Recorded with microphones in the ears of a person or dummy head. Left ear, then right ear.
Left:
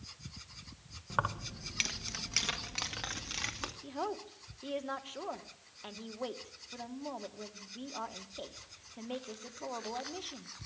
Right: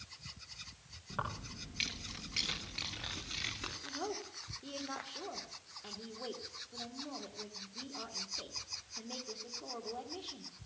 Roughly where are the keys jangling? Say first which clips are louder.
Left 6 dB; left.